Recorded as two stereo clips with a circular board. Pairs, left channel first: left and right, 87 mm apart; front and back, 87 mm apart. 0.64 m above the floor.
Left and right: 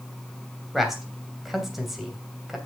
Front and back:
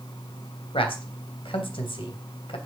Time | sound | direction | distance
0.7 | a man speaking | straight ahead | 3 m